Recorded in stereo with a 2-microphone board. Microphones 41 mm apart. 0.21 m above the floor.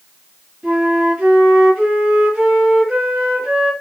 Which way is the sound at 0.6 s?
25° right (ahead or behind).